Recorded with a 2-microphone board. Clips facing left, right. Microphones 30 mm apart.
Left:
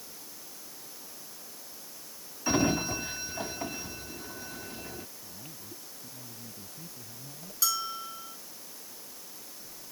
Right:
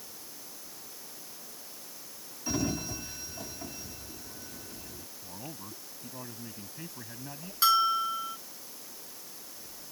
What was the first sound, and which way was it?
A sliding door, 40° left (ahead or behind).